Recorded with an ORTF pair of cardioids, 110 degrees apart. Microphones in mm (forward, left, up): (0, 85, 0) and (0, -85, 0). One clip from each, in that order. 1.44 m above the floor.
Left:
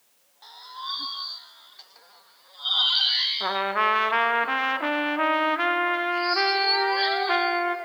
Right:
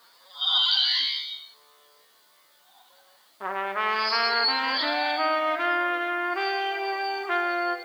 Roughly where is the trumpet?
Ahead.